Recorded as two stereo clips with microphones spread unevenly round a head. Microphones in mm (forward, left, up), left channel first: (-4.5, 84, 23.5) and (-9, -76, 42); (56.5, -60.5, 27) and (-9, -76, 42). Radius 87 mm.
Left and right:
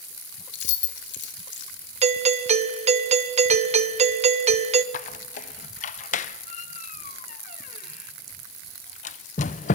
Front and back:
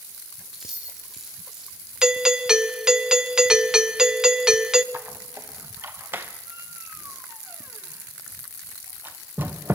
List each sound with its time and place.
0.5 s keys jangling: 105° left, 2 m
2.0 s a doorbell: 75° right, 1.0 m
4.9 s a squeak: 130° left, 0.5 m